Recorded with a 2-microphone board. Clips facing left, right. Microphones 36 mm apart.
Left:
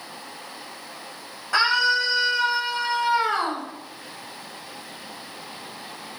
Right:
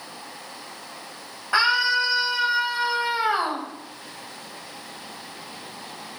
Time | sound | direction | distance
1.5 | a scream | 15° right (ahead or behind) | 10 m